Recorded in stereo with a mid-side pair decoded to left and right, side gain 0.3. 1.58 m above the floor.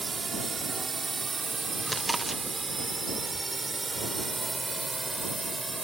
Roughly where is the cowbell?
No cowbell in this recording.